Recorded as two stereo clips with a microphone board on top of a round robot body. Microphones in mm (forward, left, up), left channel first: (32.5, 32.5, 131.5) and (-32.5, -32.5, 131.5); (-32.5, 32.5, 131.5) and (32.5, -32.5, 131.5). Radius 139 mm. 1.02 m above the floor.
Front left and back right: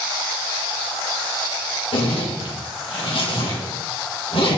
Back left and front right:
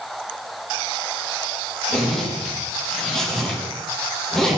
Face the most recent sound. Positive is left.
turn(degrees=50)